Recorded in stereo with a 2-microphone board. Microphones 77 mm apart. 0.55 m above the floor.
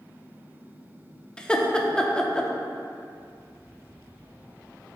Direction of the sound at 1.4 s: 10° left (ahead or behind).